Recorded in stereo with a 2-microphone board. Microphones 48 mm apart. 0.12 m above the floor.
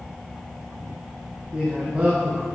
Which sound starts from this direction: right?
A man speaking, at 1.5 s.